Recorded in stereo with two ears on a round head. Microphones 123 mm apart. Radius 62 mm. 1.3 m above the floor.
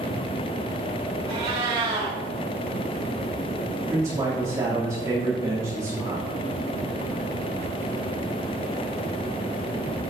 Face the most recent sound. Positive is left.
turn(degrees=-25)  # may be behind; listen again after turning